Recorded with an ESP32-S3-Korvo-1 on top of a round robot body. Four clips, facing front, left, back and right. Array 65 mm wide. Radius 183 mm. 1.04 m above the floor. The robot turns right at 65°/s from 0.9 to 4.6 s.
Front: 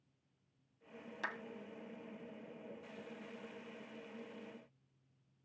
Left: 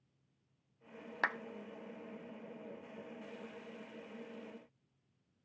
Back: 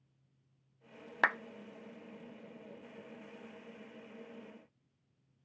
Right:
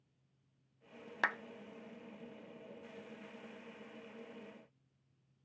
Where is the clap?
170° left, 0.5 m; by 1.4 s straight behind, 0.5 m.